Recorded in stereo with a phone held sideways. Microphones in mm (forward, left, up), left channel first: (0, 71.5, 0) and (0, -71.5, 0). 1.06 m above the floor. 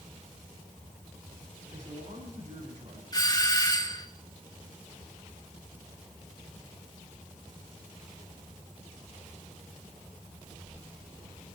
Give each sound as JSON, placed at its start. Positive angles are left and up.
{"t": 1.7, "sound": "a man speaking", "side_deg": -55, "distance_m": 9.0}
{"t": 3.1, "sound": "a doorbell", "side_deg": 30, "distance_m": 1.5}